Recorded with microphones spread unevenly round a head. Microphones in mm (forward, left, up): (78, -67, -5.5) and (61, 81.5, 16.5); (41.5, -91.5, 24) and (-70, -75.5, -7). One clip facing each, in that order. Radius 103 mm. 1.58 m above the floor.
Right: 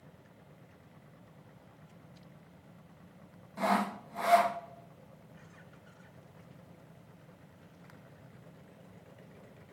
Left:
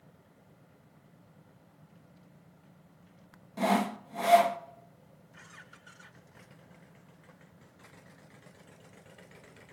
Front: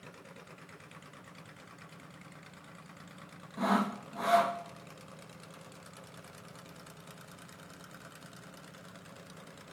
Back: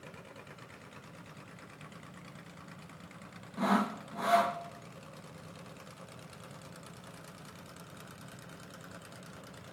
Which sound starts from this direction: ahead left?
Sawing, at 3.6 s.